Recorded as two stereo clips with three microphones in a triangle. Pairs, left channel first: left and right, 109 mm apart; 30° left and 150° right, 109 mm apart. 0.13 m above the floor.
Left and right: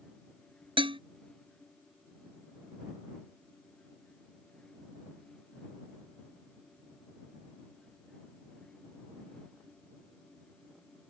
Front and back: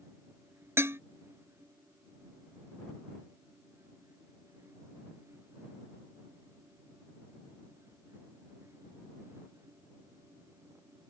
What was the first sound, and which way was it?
Dishes clattering, 90° right.